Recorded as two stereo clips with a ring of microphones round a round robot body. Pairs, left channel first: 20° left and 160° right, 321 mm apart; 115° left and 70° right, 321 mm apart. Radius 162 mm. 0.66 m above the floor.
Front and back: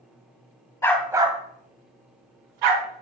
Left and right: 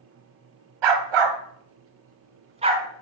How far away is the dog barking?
About 1.5 m.